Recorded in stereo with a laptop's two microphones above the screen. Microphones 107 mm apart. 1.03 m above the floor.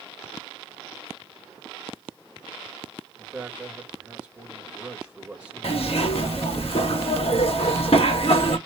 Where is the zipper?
65° left (ahead or behind), 1.3 m.